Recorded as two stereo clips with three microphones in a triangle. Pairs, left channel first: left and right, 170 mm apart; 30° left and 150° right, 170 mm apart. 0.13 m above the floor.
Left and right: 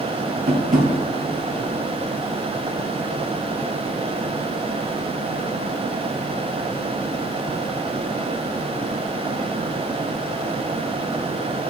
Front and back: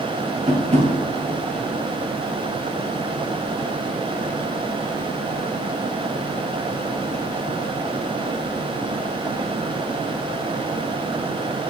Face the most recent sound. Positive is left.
turn(degrees=-110)